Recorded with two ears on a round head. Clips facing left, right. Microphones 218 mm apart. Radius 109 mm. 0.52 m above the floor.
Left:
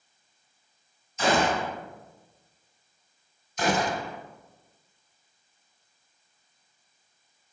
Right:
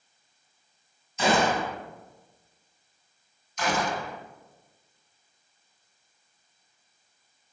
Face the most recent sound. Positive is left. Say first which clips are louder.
# left 2 dB
turn(degrees=30)  # may be behind; listen again after turning